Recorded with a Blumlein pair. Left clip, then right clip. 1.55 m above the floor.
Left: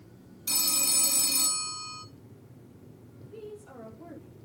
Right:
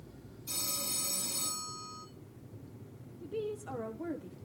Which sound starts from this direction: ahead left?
A phone ringing, at 0.5 s.